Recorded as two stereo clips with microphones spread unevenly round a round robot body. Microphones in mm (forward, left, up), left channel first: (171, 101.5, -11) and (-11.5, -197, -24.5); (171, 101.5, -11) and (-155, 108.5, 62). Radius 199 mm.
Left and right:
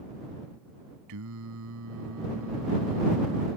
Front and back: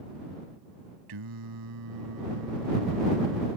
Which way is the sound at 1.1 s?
170° right.